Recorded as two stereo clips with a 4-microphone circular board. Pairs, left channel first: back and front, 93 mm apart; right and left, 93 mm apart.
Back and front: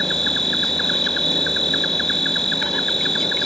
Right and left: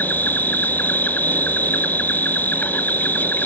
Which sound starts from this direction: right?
An insect, at 0.0 s.